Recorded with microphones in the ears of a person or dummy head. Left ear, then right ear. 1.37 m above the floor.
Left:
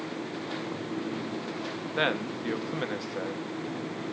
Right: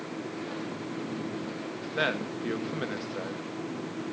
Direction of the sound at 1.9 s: 20° left (ahead or behind).